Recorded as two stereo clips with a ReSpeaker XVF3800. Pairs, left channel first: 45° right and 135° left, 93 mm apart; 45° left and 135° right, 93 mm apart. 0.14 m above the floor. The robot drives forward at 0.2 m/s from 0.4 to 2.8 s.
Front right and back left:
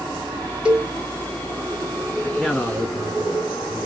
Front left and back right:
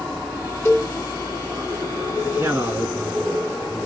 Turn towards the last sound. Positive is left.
turn(degrees=-135)